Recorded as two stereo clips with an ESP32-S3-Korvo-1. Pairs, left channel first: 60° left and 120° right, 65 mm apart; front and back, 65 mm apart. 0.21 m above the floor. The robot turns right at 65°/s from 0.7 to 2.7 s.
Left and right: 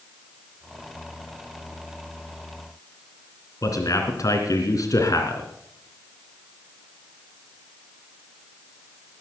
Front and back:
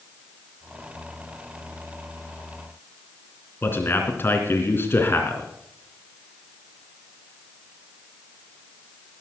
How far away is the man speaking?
About 3 m.